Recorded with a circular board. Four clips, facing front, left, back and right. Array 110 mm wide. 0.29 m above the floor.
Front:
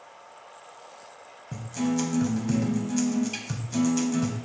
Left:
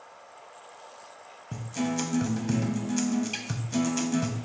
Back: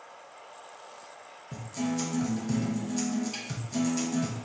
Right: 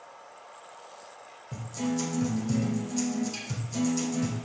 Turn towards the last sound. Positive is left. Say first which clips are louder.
# left 1 dB, front 4 dB
turn(degrees=65)